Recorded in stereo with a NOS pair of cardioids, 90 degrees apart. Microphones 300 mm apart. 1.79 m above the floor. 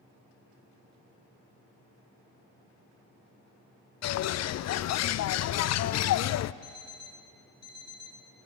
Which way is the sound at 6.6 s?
65° left.